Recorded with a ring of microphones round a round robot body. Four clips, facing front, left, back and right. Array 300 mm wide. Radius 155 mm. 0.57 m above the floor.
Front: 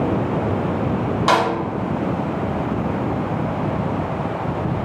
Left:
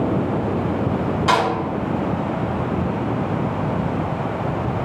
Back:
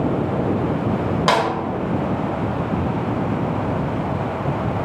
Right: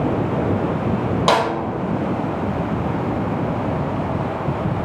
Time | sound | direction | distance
1.3 | a snare drum | 115° right | 0.9 m